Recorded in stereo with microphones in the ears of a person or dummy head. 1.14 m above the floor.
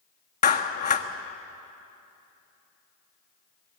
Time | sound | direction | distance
0.4 | a clap | 35° left (ahead or behind) | 1.4 m